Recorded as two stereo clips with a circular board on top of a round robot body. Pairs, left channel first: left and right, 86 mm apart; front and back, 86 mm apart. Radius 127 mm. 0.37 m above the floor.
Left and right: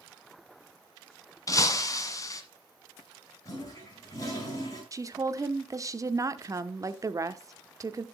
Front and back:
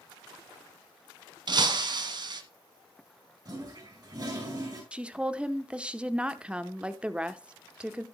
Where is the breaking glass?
140° left, 1.2 m.